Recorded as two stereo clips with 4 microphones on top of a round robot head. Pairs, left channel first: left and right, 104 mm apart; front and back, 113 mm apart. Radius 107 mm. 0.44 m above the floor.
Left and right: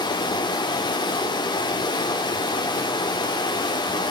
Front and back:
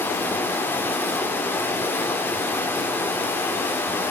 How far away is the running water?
About 1.3 m.